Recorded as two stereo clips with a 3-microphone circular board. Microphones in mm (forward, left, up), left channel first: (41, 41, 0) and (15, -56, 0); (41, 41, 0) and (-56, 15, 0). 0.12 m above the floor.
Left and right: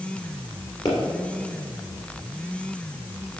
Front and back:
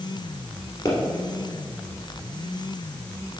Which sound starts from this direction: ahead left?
A pop, at 0.8 s.